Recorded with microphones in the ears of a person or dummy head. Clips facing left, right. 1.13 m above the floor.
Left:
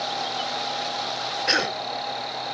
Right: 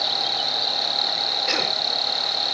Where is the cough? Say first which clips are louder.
Left 2 dB; 10° left (ahead or behind).